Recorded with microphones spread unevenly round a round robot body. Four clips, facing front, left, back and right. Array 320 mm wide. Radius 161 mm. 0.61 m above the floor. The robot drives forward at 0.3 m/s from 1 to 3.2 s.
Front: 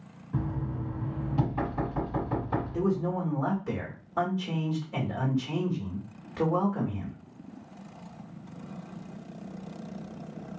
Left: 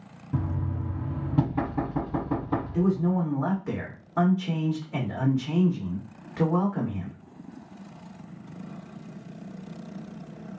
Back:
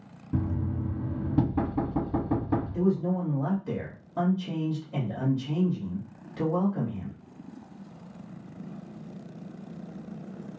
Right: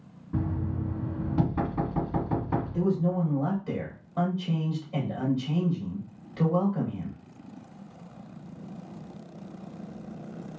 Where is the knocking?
155° left, 1.5 m; by 2.8 s 160° left, 2.0 m.